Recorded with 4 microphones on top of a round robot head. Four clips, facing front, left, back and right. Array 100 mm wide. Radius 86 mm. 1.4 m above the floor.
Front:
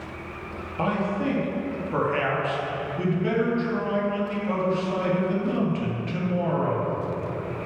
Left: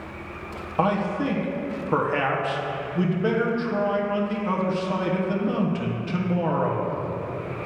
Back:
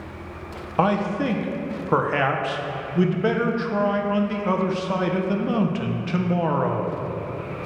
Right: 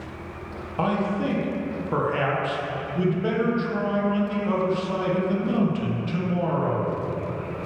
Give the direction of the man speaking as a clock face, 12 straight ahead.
6 o'clock.